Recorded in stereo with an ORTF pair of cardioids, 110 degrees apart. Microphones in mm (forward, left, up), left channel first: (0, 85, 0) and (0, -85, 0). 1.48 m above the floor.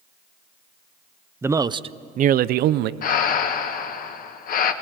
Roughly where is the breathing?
Ahead left.